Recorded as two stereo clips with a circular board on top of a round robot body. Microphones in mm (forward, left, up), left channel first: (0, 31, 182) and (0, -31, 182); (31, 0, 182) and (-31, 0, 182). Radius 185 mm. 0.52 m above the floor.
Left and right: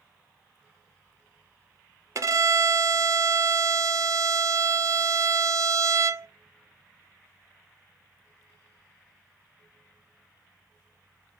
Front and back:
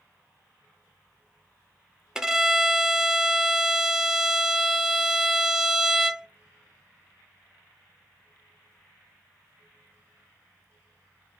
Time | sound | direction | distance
2.1 | a violin | 100° right | 0.6 m